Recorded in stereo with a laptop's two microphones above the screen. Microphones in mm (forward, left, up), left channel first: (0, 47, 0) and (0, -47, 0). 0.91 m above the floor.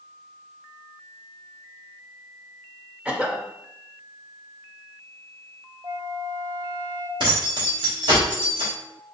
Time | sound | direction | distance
3.0 | a cough | 15° right (ahead or behind) | 1.1 m
5.8 | a flute | 50° right (ahead or behind) | 0.5 m
7.2 | keys jangling | 55° right (ahead or behind) | 2 m